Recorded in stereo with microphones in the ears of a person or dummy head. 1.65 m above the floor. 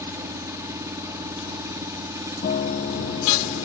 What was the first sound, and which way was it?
An engine running, 5° right (ahead or behind).